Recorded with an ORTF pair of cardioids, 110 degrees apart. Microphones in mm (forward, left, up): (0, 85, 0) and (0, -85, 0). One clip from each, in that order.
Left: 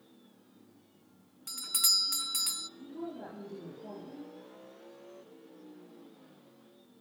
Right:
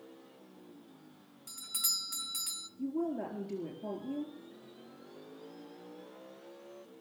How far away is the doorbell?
About 0.6 m.